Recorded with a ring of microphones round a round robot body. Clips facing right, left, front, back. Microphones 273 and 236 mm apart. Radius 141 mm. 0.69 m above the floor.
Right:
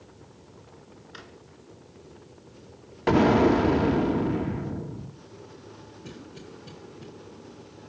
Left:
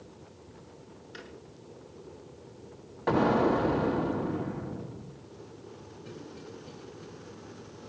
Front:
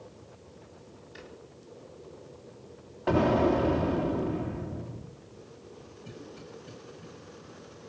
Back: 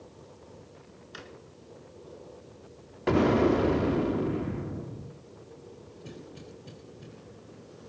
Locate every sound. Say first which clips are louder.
1.1 s a drawer: left 3 dB, back 1 dB; 170° right, 3 m
3.1 s an explosion: right 6 dB, back 2 dB; 120° right, 2 m
6.0 s a cough: right 1 dB, even; 125° right, 4 m